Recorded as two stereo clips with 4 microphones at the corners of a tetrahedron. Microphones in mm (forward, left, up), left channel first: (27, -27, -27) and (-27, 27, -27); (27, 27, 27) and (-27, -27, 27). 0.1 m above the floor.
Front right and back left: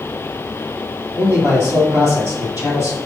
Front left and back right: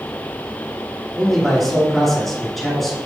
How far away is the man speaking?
About 1.8 m.